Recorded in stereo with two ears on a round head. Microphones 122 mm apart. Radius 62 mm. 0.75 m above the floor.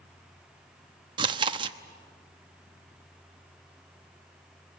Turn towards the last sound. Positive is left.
turn(degrees=-35)  # may be behind; listen again after turning